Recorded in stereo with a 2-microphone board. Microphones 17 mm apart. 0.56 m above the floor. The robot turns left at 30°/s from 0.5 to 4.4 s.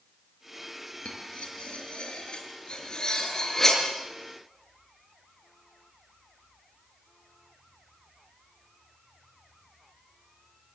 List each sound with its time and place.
1.1 s cutlery clinking: 85° left, 6 m; by 3.8 s 10° left (ahead or behind), 6 m